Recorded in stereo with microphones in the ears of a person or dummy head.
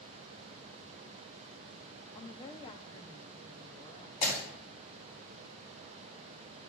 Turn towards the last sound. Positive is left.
turn(degrees=60)  # may be behind; listen again after turning